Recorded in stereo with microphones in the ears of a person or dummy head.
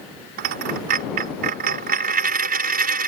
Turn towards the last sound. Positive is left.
turn(degrees=-55)  # may be behind; listen again after turning